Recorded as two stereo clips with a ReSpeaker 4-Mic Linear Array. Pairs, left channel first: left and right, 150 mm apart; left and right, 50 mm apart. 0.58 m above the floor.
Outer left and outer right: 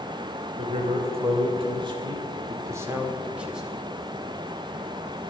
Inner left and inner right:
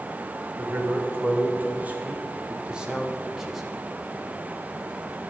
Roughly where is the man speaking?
Right.